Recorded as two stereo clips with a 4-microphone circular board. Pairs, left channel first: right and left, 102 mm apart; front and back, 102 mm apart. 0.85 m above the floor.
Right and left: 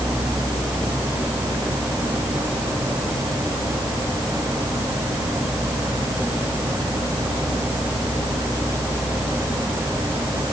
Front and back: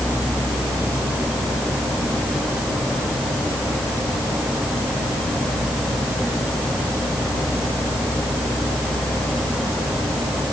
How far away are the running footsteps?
I don't hear running footsteps.